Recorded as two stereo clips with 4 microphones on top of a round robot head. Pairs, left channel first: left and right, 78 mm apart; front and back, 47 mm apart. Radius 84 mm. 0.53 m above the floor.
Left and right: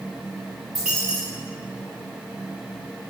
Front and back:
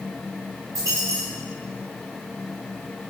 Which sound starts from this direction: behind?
A dropped coin, at 0.8 s.